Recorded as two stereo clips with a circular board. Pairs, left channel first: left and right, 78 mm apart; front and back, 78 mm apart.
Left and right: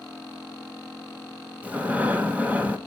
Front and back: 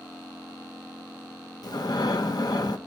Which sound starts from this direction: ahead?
Breathing, at 1.6 s.